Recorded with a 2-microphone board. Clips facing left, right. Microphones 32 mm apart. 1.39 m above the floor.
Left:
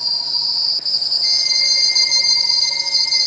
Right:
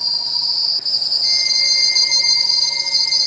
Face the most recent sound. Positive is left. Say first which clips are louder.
# even
turn(degrees=10)  # may be behind; listen again after turning